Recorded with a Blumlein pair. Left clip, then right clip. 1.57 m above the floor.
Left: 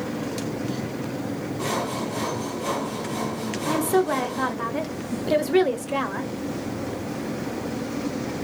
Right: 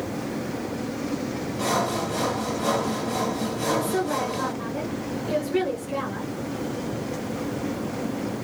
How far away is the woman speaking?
About 1.0 m.